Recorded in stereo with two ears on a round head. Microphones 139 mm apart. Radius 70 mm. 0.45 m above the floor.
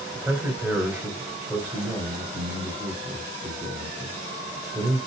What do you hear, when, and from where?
0.1 s a man speaking: 10° right (ahead or behind), 1.7 m